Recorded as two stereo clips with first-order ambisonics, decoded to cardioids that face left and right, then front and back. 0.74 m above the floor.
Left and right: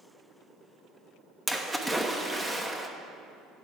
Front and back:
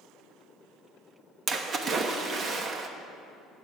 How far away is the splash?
About 1.0 m.